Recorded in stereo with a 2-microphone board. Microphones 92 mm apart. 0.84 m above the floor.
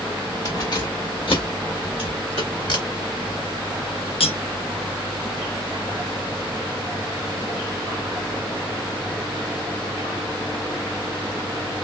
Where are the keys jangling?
40° left (ahead or behind), 1.1 m; by 3.4 s 85° left, 4 m.